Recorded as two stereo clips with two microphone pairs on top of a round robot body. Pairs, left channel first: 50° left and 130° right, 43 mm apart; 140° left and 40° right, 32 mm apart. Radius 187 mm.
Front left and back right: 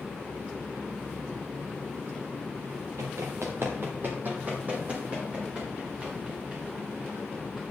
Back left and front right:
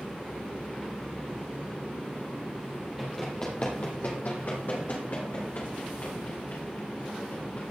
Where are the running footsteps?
125° right, 0.7 m; by 7.6 s 160° left, 4 m.